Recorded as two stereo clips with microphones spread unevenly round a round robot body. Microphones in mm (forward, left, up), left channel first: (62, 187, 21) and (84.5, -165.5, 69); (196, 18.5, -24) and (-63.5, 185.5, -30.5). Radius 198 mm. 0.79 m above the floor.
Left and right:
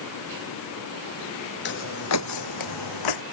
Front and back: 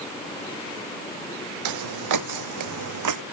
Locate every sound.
1.6 s footsteps: 160° left; by 3.2 s 130° left